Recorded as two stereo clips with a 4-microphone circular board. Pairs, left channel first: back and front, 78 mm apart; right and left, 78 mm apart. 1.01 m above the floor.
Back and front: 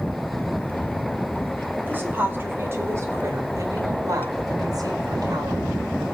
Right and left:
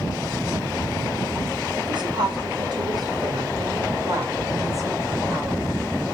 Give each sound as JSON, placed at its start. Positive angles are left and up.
{"t": 1.8, "sound": "a woman speaking", "azimuth_deg": 70, "distance_m": 4.5}